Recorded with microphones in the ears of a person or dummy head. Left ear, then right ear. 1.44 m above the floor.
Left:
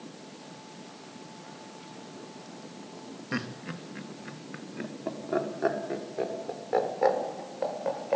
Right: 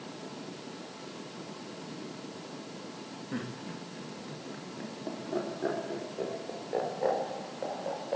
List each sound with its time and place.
3.3 s laughter: 65° left (ahead or behind), 2.5 m; by 8.2 s 60° left (ahead or behind), 7 m